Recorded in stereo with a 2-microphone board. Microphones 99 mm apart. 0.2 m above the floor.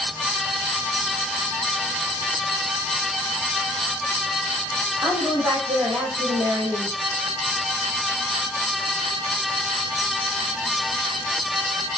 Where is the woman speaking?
30° right (ahead or behind), 5.5 m.